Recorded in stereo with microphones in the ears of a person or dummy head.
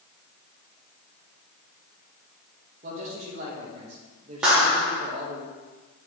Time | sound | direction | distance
2.8 | a man speaking | 40° right (ahead or behind) | 1.2 m
4.4 | a clap | 10° right (ahead or behind) | 1.0 m